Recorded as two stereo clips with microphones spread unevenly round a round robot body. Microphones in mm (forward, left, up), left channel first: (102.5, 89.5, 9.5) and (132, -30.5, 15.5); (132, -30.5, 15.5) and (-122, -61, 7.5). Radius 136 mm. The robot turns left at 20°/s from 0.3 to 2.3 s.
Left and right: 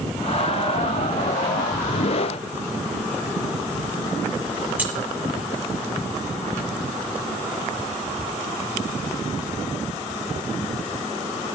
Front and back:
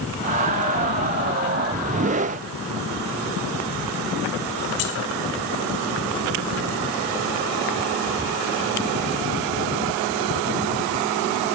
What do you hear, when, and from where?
4.8 s keys jangling: straight ahead, 2 m